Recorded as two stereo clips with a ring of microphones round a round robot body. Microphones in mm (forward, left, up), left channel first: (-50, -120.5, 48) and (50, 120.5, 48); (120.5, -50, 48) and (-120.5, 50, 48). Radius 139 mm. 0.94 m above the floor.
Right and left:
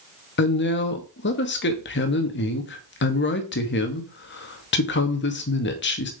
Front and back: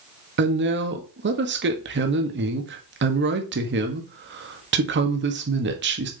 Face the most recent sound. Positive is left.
turn(degrees=-160)